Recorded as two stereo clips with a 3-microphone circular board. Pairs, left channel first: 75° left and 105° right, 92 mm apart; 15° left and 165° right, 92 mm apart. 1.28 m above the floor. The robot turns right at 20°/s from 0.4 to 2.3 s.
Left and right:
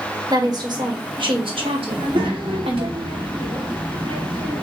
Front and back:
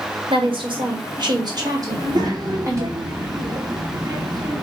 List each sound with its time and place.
0.3 s a woman speaking: 150° right, 1.7 m; by 2.9 s 110° right, 1.7 m
1.9 s a child speaking: 135° right, 1.7 m; by 4.6 s 125° right, 1.7 m